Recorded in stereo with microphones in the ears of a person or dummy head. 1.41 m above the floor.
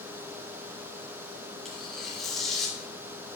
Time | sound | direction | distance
1.6 | tearing paper | 5° left (ahead or behind) | 2 m